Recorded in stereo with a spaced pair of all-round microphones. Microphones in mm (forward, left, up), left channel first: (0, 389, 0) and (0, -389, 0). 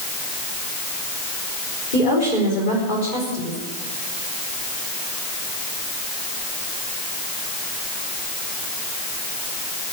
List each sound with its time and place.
1.9 s a woman speaking: 80° left, 5 m